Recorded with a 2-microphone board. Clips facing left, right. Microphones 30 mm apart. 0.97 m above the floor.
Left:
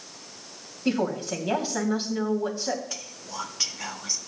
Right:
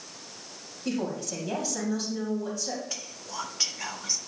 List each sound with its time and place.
0.8 s a woman speaking: 40° left (ahead or behind), 2.5 m
2.9 s whispering: centre (ahead or behind), 1.2 m